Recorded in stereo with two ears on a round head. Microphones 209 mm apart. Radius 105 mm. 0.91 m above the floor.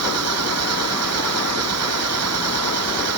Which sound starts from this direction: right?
An engine running, at 0.0 s.